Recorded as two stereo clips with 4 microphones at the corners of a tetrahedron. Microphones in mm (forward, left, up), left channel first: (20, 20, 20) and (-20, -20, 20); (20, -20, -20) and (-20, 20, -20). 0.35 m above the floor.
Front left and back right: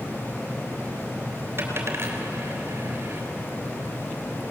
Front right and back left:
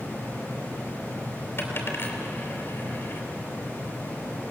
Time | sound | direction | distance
1.6 | a dropped coin | 90° right | 3 m